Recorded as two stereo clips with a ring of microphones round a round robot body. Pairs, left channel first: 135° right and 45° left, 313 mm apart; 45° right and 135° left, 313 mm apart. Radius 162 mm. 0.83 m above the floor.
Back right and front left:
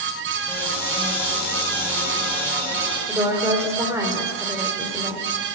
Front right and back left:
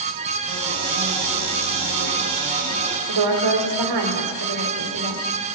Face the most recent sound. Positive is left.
turn(degrees=125)